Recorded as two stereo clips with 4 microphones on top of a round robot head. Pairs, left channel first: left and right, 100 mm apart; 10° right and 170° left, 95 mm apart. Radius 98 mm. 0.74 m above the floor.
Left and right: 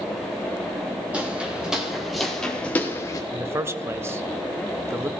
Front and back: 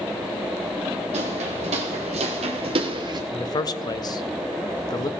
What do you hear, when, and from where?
1.1 s footsteps: 170° right, 2.0 m; by 3.2 s 135° left, 0.9 m
3.3 s a man speaking: 35° right, 0.8 m